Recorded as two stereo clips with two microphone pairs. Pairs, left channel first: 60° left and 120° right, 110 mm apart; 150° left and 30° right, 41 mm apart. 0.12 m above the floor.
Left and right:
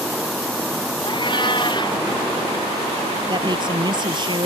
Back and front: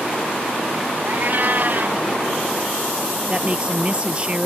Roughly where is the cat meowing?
Ahead.